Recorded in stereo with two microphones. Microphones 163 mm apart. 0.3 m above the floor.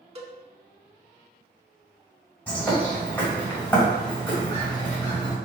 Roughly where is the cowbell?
Right.